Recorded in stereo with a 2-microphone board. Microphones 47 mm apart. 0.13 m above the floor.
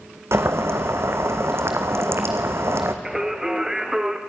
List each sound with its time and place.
0.3 s boiling: 75° right (ahead or behind), 2 m
3.0 s singing: 15° right (ahead or behind), 2.5 m